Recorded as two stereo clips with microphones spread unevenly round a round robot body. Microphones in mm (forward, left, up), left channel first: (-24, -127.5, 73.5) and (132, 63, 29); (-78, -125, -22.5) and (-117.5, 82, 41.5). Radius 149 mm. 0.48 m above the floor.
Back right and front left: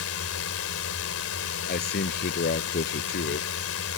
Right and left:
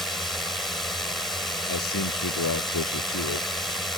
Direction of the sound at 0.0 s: 155° right.